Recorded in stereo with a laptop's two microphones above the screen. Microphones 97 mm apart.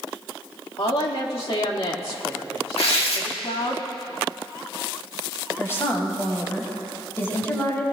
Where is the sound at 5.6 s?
25° left (ahead or behind), 6 m.